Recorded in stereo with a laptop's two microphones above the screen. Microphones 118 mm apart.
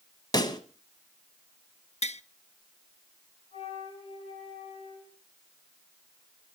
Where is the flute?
50° left (ahead or behind), 8 m.